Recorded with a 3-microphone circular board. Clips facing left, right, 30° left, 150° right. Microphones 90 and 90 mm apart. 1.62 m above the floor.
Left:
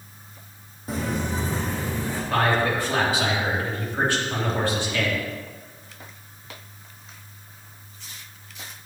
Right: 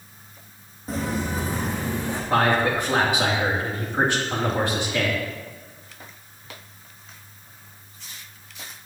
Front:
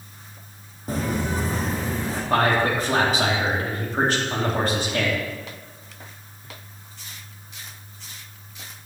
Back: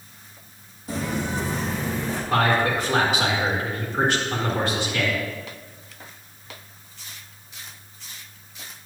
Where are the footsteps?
5° left, 2.5 m; by 2.2 s 25° right, 3.5 m.